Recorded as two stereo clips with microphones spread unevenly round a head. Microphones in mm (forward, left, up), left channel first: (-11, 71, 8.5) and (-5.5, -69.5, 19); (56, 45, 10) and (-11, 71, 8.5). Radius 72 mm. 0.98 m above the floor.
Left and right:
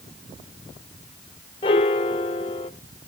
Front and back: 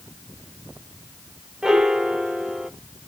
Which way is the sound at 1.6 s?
85° left.